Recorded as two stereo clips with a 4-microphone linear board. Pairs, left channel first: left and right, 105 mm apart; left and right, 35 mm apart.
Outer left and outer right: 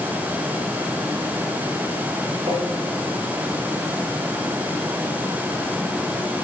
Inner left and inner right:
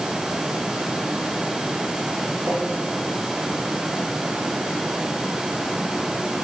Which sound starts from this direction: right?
Tapping, at 2.5 s.